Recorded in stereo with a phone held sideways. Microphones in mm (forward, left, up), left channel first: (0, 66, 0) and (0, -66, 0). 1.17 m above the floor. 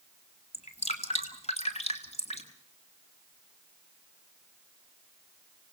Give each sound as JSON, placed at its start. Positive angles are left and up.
{"t": 0.5, "sound": "dripping", "side_deg": 55, "distance_m": 2.5}